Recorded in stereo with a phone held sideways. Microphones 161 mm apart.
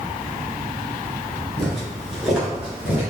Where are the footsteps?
Centre (ahead or behind), 1.7 m; by 3.1 s 10° right (ahead or behind), 1.6 m.